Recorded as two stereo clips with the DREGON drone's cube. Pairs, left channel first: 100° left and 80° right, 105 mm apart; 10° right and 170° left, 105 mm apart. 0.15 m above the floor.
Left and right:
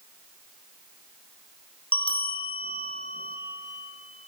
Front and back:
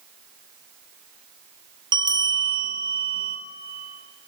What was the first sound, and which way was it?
A bell, 125° left.